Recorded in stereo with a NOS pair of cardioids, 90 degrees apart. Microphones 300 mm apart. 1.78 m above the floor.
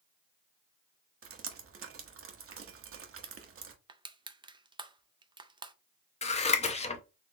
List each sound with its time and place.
1.2 s dripping: 50° right, 0.9 m
3.9 s crushing: 15° right, 0.5 m
6.2 s scissors: 20° left, 0.8 m